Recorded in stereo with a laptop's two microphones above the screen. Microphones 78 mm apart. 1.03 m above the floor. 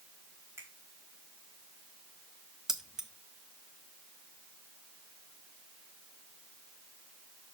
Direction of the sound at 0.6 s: 35° right (ahead or behind).